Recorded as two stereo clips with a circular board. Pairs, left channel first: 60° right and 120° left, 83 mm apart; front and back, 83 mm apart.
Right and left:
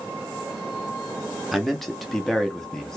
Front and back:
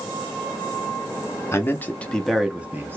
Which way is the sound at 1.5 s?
30° left.